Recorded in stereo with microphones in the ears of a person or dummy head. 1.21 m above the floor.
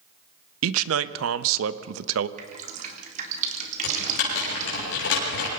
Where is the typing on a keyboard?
75° left (ahead or behind), 7.5 m.